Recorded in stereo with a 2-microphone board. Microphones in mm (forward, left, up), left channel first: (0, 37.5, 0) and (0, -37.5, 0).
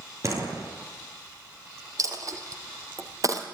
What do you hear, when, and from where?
0.2 s a door slam: 45° right (ahead or behind), 8.5 m
2.0 s a dropped coin: 45° right (ahead or behind), 3.5 m